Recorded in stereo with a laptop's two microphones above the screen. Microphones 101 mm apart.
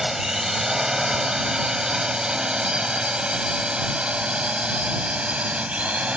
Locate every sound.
0.0 s a drone: 5° right (ahead or behind); by 6.2 s 10° right (ahead or behind)